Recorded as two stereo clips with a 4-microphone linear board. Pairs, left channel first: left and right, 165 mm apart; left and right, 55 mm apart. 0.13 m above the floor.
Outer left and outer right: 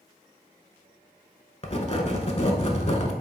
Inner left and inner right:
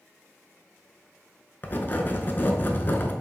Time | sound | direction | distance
1.6 | writing | 40° left (ahead or behind) | 0.5 m